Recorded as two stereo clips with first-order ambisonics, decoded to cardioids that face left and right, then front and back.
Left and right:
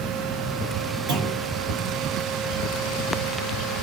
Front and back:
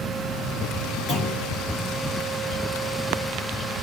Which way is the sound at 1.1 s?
65° right.